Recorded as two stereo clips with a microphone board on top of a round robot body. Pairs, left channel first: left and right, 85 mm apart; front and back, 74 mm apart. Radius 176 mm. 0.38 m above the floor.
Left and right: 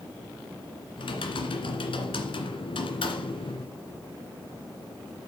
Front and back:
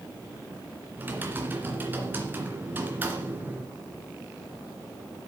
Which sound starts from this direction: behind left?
Typing on a keyboard, at 1.0 s.